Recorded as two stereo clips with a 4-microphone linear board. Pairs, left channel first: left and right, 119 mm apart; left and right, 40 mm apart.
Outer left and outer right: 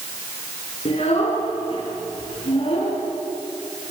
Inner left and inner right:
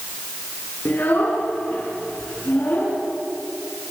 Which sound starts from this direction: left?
A child speaking, at 0.8 s.